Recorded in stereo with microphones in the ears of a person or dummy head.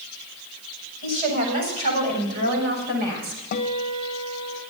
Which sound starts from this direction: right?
A woman speaking, at 1.0 s.